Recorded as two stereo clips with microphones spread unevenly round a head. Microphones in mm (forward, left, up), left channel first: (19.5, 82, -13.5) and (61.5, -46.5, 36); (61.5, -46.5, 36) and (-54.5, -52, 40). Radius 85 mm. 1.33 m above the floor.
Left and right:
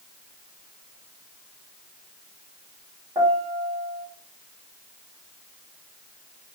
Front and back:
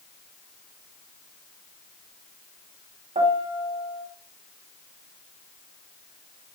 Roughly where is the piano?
Behind right.